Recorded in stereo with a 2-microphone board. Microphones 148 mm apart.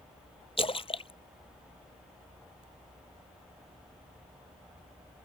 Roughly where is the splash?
Left.